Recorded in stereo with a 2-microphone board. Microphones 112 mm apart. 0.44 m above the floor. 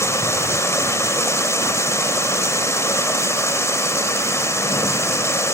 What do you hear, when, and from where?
0.0 s running water: 25° left (ahead or behind), 1.1 m